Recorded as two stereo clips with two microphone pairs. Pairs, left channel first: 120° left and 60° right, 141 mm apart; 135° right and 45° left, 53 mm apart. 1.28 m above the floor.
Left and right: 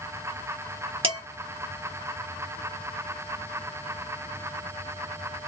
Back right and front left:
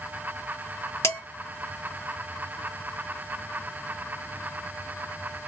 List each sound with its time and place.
1.0 s dishes clattering: 110° right, 1.3 m